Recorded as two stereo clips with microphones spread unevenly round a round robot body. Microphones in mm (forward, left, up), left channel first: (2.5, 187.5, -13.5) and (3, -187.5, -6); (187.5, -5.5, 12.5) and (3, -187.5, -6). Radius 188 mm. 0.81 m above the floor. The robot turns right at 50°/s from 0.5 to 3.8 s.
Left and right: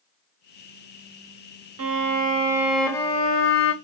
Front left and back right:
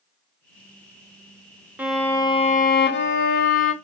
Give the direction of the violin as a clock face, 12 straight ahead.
2 o'clock.